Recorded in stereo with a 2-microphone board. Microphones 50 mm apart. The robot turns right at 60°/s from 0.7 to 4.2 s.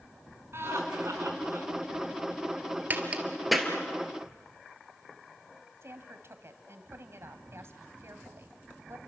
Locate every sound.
0.5 s laughter: 120° right, 4.5 m; by 1.7 s 60° right, 4.5 m
2.9 s a crack: 35° right (ahead or behind), 2.5 m; by 3.7 s 10° left (ahead or behind), 2.5 m
5.8 s a woman speaking: 55° right (ahead or behind), 2 m